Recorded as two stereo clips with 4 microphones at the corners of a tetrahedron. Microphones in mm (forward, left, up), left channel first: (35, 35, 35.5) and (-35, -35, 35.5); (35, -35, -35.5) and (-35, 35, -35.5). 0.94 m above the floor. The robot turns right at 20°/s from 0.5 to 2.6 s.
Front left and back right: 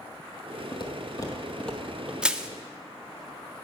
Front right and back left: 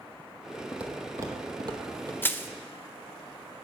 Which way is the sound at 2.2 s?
70° right.